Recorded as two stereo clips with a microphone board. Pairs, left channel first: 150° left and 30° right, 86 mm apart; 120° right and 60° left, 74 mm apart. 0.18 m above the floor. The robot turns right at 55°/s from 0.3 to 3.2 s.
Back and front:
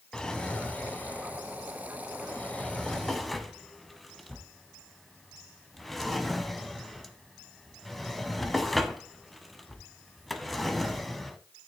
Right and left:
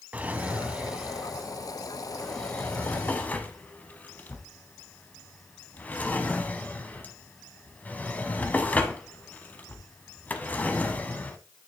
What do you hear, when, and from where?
0.1 s a drawer: 80° left, 0.7 m; by 11.4 s 120° right, 0.7 m